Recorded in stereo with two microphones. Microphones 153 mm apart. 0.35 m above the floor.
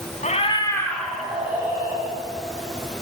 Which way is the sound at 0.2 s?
50° left (ahead or behind).